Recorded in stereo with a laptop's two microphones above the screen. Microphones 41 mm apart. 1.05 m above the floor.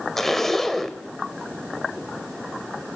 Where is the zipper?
5° left (ahead or behind), 2 m.